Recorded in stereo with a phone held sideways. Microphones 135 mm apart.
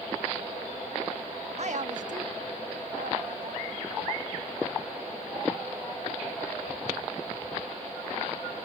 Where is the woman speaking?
55° right (ahead or behind), 0.6 m; by 3.9 s 85° right, 3.5 m.